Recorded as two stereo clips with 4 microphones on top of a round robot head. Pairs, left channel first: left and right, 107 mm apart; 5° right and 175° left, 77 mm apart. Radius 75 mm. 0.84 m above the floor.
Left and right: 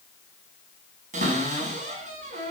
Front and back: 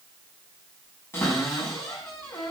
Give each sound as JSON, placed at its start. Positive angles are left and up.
{"t": 1.1, "sound": "a cupboard door", "azimuth_deg": -70, "distance_m": 5.5}